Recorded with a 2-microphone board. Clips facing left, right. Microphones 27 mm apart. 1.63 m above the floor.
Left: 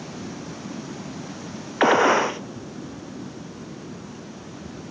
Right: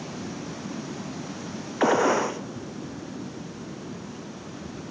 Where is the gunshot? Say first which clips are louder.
Left 4 dB; 40° left (ahead or behind), 0.7 m.